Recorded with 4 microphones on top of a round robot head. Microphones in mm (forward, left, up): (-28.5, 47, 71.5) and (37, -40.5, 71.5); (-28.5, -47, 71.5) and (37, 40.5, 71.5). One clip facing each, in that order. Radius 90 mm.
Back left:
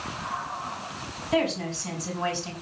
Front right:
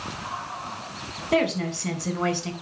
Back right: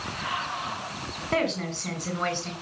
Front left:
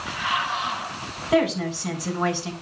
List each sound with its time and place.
1.3 s a woman speaking: 25° right, 4 m